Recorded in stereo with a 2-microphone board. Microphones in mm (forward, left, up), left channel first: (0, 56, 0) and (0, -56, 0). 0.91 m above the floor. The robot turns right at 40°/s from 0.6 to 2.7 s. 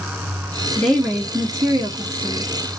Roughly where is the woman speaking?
Behind.